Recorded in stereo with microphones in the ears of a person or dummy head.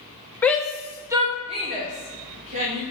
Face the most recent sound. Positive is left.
turn(degrees=-40)  # may be behind; listen again after turning